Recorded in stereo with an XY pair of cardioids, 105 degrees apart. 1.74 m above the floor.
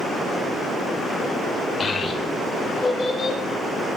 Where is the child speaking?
30° left, 1.8 m.